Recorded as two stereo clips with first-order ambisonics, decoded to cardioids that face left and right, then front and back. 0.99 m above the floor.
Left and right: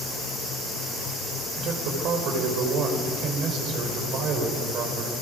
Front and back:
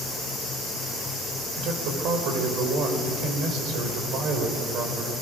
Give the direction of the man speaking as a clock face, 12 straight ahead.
5 o'clock.